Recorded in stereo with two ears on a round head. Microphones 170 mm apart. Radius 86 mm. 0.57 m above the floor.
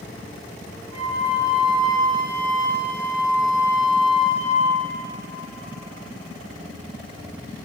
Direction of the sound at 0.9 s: 25° right (ahead or behind).